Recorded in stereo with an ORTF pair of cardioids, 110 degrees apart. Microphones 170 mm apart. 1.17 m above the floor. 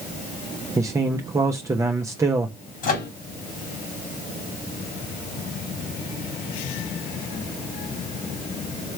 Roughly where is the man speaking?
Ahead.